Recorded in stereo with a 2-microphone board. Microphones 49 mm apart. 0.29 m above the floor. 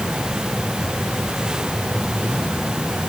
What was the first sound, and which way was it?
Only background noise.